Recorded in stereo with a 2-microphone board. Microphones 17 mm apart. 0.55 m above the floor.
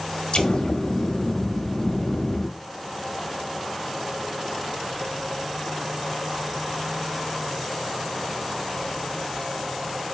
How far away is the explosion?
About 0.7 m.